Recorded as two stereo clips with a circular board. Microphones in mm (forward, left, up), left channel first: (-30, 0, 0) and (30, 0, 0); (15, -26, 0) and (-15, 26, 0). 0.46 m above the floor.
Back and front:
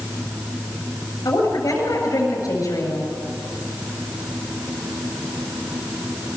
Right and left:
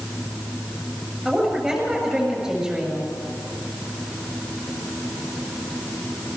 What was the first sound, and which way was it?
A woman speaking, 160° right.